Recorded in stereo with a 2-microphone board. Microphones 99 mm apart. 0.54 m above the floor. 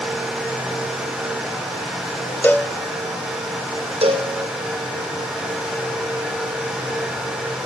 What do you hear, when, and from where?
2.4 s a cowbell: 15° left (ahead or behind), 0.8 m
4.0 s a cowbell: 85° right, 2.5 m